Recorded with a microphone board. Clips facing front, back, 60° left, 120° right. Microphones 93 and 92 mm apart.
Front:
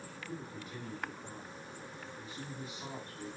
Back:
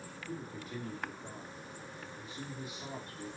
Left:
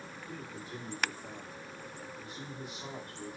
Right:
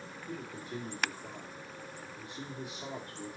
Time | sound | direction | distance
0.3 | a man speaking | 145° right | 2.5 m